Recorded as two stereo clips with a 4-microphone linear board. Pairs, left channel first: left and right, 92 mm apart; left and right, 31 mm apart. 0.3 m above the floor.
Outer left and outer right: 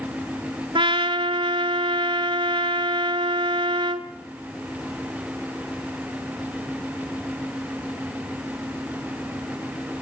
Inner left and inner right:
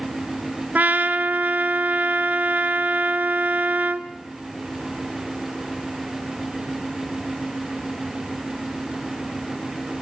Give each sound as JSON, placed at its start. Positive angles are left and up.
{"t": 0.8, "sound": "a trumpet", "side_deg": -65, "distance_m": 0.8}